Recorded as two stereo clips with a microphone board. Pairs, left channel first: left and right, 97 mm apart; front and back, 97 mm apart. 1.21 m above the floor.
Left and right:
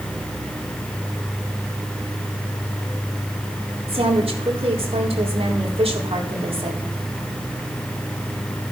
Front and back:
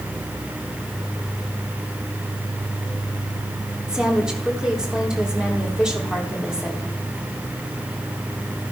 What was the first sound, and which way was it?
A woman speaking, 100° right.